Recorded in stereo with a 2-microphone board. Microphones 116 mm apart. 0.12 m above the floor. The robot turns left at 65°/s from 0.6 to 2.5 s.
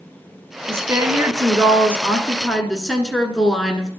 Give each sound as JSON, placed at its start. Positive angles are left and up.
{"t": 0.7, "sound": "a woman speaking", "side_deg": -20, "distance_m": 1.1}